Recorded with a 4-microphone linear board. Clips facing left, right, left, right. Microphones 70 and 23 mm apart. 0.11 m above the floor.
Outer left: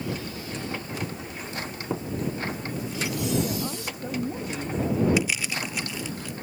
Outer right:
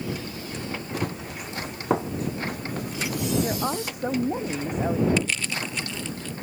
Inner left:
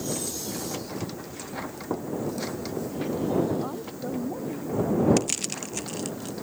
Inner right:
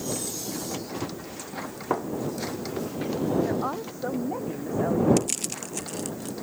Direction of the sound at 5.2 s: 10° left (ahead or behind).